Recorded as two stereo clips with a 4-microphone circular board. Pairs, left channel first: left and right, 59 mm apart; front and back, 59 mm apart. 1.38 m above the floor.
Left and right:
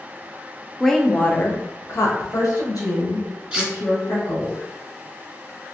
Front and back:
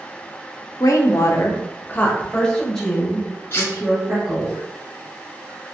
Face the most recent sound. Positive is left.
turn(degrees=-20)